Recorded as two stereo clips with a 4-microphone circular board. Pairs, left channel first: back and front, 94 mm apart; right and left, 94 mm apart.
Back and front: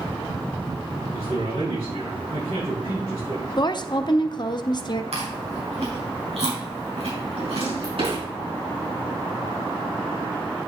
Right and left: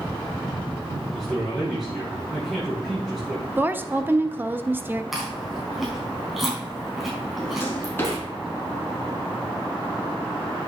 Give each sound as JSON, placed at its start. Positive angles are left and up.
{"t": 1.1, "sound": "a man speaking", "azimuth_deg": 0, "distance_m": 5.5}
{"t": 3.6, "sound": "a woman speaking", "azimuth_deg": 155, "distance_m": 0.7}
{"t": 5.1, "sound": "chewing", "azimuth_deg": 0, "distance_m": 4.0}
{"t": 7.4, "sound": "a drawer", "azimuth_deg": -25, "distance_m": 4.0}